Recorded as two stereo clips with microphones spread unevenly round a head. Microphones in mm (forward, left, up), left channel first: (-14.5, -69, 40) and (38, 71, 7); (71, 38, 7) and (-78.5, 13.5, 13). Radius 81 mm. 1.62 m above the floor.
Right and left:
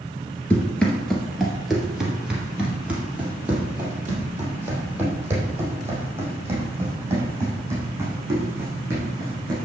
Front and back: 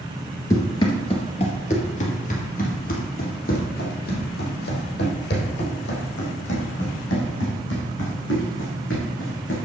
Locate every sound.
0.5 s running footsteps: 55° right, 1.9 m; by 9.6 s 5° right, 7 m